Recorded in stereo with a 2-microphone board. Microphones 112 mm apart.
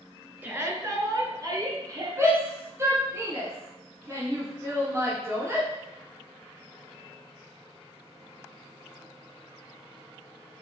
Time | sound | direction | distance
0.4 | a shout | 15° right (ahead or behind) | 1.4 m
2.2 | a shout | 25° right (ahead or behind) | 1.8 m